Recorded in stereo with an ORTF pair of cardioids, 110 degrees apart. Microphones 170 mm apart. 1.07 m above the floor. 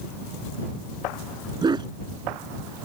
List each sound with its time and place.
1.6 s a dog barking: 25° right